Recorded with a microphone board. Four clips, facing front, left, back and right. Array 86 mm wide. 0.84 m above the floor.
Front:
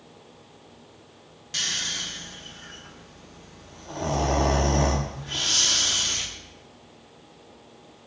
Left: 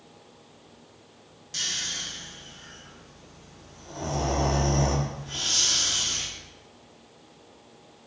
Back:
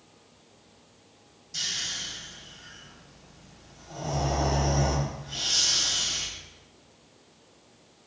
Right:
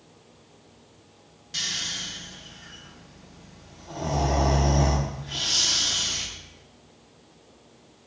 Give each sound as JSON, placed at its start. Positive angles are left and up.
{"t": 1.5, "sound": "snoring", "azimuth_deg": -10, "distance_m": 0.6}